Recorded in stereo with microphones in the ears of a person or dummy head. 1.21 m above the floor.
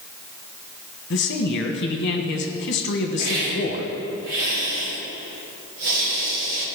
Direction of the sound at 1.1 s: 55° left (ahead or behind).